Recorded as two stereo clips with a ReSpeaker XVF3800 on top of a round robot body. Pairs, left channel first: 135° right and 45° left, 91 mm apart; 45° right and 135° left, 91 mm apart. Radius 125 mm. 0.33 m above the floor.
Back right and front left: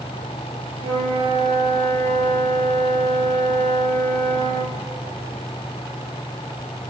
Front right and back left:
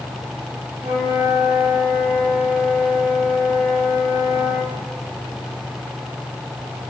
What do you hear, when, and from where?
0.8 s a flute: 65° left, 3.5 m